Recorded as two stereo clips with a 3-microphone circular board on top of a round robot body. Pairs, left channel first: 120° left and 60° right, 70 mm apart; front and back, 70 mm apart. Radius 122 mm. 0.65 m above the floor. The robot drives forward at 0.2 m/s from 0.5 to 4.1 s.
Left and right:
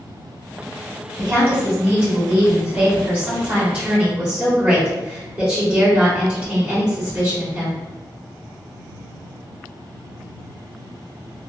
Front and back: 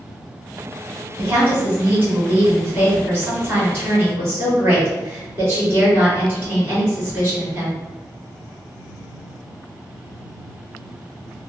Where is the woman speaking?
110° right, 1.4 m; by 7.8 s 130° right, 1.6 m.